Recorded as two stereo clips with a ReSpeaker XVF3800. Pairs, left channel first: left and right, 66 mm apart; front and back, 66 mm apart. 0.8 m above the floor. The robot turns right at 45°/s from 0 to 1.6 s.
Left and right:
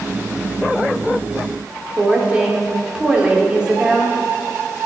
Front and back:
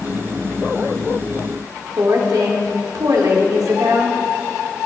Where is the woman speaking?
160° right, 2.0 m.